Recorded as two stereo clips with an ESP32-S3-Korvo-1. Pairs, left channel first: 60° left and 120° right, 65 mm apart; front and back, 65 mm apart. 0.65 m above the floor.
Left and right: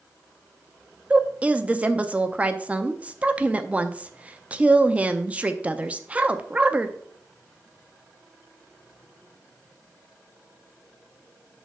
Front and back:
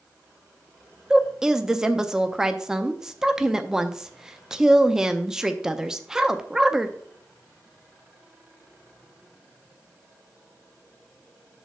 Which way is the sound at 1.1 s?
115° right.